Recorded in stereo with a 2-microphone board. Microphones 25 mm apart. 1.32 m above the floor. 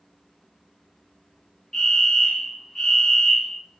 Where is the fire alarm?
20° left (ahead or behind), 1.1 m.